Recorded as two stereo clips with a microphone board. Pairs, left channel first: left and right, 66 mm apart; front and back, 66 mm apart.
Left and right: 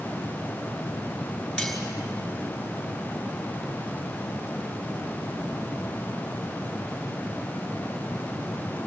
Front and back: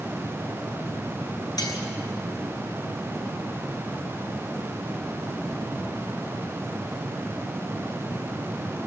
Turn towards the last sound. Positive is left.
turn(degrees=0)